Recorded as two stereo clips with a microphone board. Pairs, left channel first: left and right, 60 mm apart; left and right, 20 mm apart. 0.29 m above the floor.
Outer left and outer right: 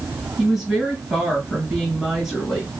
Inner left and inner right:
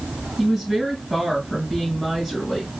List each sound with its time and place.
0.4 s a woman speaking: centre (ahead or behind), 3 m